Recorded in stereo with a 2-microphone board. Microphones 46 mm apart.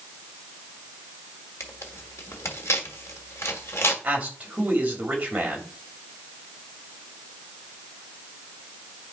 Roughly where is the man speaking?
Right.